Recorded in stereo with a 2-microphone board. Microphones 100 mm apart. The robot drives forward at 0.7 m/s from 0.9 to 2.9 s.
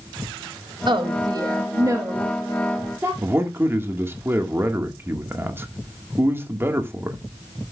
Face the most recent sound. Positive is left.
turn(degrees=-25)  # may be behind; listen again after turning